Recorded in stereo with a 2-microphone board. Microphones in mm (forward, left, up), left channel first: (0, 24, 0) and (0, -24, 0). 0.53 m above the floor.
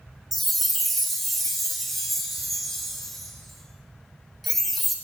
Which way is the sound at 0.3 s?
Centre (ahead or behind).